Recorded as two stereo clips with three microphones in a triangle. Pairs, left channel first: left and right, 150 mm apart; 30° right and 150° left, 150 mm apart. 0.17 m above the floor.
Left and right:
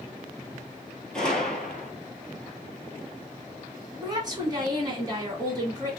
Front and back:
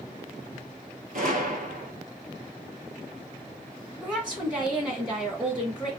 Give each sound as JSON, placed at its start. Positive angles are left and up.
{"t": 1.1, "sound": "a gunshot", "azimuth_deg": 175, "distance_m": 0.7}
{"t": 4.0, "sound": "a woman speaking", "azimuth_deg": -130, "distance_m": 1.6}